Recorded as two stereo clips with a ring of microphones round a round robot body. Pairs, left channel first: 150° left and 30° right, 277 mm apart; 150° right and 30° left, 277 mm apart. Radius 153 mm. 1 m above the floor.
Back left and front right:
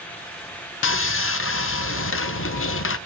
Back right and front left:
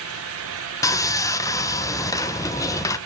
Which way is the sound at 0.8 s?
135° left.